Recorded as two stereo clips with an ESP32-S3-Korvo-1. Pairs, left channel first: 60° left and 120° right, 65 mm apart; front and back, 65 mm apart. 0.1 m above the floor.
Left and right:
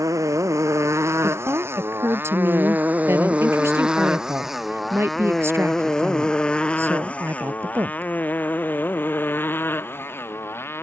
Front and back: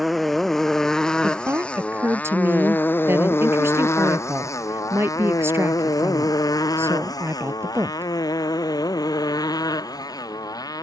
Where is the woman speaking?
150° right.